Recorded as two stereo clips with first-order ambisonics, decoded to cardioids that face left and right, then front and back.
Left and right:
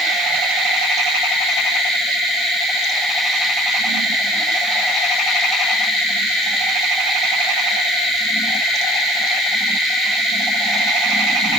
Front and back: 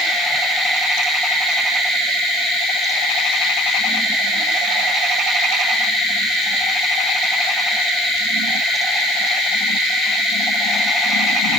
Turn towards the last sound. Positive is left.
No sound to turn to.